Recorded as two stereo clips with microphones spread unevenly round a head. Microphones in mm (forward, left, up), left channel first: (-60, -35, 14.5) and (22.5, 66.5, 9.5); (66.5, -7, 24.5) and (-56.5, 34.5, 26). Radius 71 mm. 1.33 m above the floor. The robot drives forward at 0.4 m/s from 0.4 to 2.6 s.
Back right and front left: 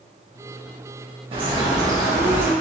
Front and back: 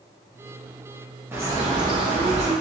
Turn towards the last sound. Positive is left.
turn(degrees=130)